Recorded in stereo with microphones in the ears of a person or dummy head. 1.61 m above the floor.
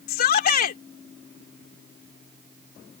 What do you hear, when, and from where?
0.1 s a shout: 55° left (ahead or behind)